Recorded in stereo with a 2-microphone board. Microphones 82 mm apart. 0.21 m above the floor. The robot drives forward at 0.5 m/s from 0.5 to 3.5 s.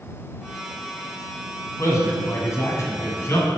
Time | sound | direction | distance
1.8 | a man speaking | 40° left (ahead or behind) | 1.6 m